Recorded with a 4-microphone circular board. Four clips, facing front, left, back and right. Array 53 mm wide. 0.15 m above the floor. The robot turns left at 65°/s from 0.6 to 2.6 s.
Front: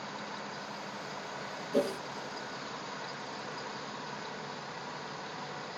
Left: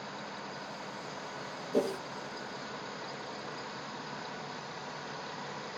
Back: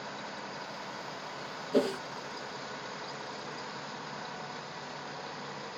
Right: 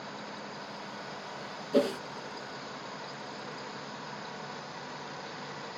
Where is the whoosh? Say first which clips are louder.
Right 4 dB, back 2 dB; 110° right, 0.6 m; by 2.0 s 130° right, 0.6 m.